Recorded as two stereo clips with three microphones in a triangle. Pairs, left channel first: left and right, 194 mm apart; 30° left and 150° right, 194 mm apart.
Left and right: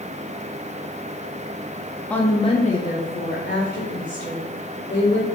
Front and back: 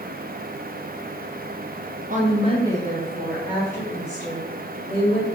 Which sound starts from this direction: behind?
A woman speaking, at 2.1 s.